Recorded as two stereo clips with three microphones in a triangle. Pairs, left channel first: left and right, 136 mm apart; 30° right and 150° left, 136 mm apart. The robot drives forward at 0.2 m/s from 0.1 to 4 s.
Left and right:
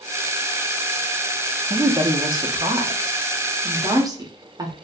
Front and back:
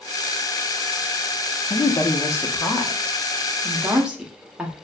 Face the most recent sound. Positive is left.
turn(degrees=-130)